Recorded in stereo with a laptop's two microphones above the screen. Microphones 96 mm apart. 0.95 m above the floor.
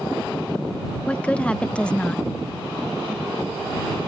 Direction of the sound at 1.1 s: 10° left (ahead or behind).